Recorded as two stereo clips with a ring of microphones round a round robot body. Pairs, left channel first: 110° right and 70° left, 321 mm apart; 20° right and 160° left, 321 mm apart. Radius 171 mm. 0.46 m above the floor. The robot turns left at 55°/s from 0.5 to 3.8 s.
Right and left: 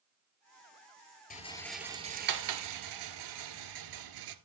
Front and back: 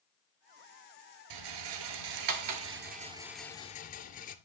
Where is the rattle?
Straight behind, 1.5 m; by 4.3 s 45° left, 1.5 m.